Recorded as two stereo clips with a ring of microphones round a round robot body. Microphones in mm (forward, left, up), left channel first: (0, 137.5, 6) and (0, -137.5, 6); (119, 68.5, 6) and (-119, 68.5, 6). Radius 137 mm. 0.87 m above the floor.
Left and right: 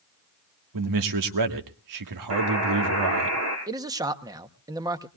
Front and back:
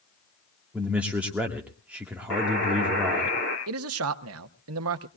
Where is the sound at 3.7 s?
165° right, 0.9 m.